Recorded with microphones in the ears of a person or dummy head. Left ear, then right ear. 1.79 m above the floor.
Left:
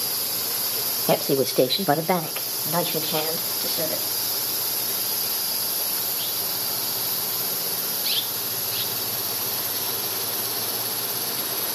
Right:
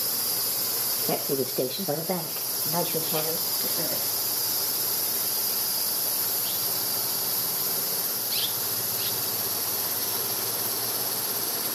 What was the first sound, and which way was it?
A woman speaking, 60° left (ahead or behind).